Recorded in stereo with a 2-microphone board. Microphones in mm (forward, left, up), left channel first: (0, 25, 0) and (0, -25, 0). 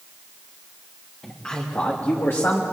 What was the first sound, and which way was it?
A man speaking, 20° left (ahead or behind).